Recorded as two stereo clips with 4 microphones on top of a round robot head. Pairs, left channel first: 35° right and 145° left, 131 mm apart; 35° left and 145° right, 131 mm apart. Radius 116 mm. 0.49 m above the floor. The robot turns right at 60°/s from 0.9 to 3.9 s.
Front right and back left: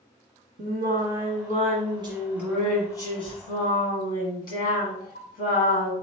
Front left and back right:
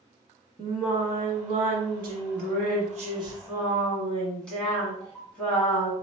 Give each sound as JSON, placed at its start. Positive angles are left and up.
{"t": 0.6, "sound": "singing", "azimuth_deg": 135, "distance_m": 1.5}